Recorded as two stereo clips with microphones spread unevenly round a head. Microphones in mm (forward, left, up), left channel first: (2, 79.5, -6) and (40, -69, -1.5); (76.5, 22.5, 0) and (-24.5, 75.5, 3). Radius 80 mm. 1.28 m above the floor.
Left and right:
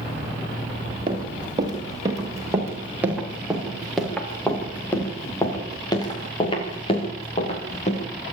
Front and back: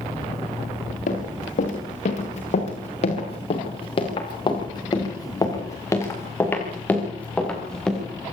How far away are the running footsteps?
About 8 m.